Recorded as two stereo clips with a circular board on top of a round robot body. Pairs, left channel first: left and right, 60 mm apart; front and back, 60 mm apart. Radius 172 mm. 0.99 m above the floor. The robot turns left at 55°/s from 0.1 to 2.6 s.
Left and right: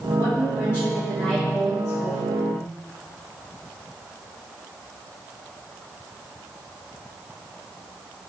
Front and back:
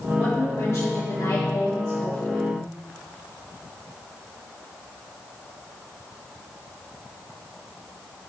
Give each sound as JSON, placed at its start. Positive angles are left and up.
{"t": 0.2, "sound": "a woman speaking", "azimuth_deg": 65, "distance_m": 3.0}